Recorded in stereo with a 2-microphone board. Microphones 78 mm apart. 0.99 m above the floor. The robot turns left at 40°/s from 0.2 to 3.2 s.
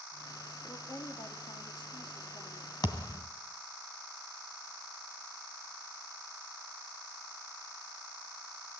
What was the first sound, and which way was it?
A woman speaking, 135° left.